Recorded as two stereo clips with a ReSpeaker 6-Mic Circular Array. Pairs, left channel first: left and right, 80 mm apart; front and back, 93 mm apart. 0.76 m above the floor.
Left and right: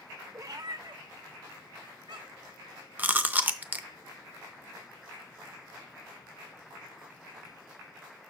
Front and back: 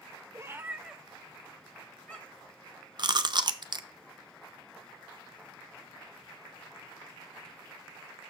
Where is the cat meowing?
130° right, 0.6 m; by 2.5 s 75° right, 1.8 m.